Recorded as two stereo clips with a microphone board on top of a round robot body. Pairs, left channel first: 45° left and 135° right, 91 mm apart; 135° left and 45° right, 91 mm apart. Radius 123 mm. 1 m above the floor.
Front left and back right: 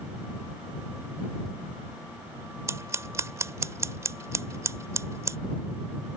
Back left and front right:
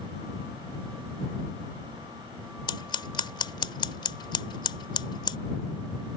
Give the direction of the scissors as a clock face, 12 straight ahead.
6 o'clock.